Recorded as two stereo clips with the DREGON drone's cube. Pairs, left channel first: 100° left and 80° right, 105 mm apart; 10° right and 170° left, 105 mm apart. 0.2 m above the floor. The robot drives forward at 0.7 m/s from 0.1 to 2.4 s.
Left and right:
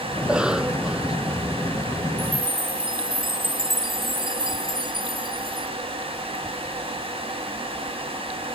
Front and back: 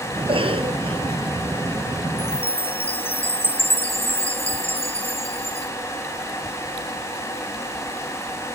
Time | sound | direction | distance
0.2 | a cough | 160° right | ?
2.2 | a chime | 35° right | ?